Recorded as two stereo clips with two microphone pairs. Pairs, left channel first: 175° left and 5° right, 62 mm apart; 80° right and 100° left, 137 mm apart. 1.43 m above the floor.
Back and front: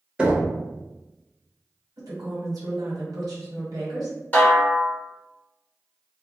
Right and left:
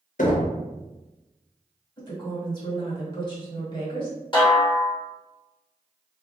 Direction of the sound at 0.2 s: 75° right.